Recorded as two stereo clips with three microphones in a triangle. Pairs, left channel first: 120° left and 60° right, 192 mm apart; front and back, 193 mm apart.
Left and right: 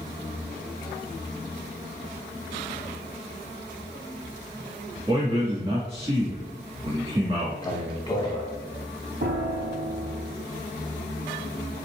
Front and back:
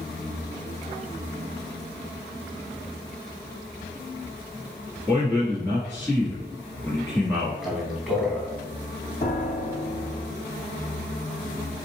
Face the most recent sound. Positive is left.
turn(degrees=-40)